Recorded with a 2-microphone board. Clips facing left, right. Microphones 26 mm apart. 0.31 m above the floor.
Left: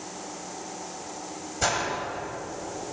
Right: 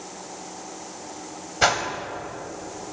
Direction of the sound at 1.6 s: 45° right (ahead or behind).